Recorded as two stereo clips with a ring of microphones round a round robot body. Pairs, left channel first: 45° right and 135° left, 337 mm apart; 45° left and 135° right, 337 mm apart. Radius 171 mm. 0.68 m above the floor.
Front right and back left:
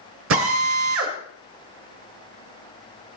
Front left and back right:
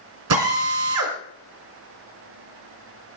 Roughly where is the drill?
Behind.